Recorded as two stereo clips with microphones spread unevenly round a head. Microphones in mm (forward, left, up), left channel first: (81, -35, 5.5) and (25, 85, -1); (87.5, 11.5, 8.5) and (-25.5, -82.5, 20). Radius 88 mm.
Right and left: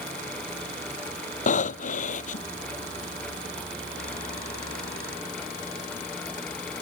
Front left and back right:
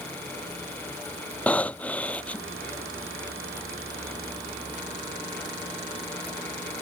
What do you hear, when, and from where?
1.5 s breathing: 40° right